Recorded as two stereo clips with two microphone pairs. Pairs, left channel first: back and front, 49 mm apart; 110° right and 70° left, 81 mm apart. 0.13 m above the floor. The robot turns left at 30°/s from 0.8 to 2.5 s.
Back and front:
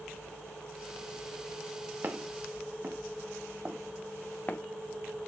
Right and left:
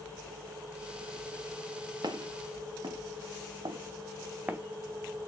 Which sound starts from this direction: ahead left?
Footsteps, at 2.0 s.